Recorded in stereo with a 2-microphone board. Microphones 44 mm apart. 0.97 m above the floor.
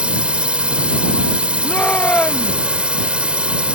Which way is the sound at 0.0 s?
25° right (ahead or behind).